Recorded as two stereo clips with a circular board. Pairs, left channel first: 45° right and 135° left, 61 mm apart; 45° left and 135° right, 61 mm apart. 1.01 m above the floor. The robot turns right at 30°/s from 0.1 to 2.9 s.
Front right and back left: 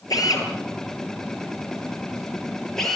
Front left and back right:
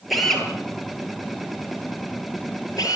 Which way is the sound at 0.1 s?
45° right.